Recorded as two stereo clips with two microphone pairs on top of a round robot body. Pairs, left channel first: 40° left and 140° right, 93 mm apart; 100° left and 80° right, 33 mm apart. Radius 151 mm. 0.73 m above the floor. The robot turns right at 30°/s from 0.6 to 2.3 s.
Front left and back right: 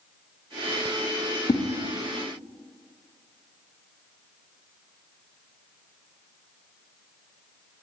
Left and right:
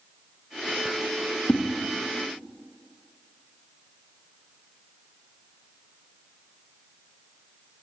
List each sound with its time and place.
1.5 s a whoosh: 40° left, 0.9 m